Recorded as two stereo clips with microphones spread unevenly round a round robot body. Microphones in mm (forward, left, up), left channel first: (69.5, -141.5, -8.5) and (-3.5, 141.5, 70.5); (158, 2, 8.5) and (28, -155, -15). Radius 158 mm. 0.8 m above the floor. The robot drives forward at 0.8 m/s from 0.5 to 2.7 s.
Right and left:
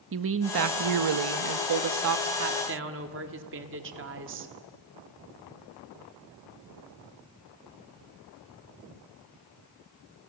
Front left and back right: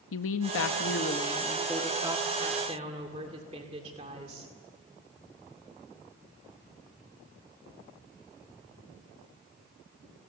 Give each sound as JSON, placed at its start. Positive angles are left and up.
{"t": 0.1, "sound": "a woman speaking", "azimuth_deg": 50, "distance_m": 0.7}